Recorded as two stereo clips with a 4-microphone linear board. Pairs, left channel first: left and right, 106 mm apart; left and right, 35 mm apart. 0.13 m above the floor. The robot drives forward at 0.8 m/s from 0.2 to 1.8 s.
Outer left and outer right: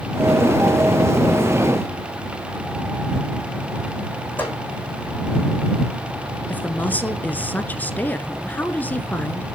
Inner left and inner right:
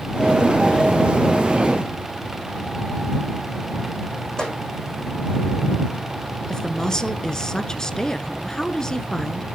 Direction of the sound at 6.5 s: 15° left (ahead or behind).